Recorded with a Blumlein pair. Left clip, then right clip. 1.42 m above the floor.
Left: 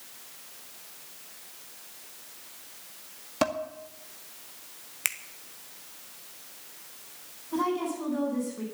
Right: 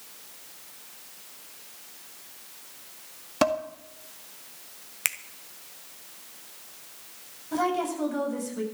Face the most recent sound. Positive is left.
turn(degrees=-30)